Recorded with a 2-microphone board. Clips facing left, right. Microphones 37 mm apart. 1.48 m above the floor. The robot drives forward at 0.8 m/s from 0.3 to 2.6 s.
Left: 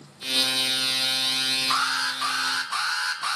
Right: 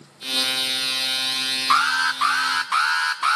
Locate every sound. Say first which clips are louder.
1.7 s an alarm: right 10 dB; 70° right (ahead or behind), 3 m; by 3.4 s 85° right, 3 m